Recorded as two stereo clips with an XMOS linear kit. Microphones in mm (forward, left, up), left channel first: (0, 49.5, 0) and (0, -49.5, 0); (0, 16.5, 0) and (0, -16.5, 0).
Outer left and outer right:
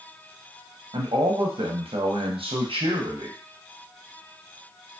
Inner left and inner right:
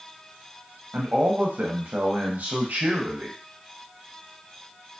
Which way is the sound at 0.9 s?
70° right (ahead or behind).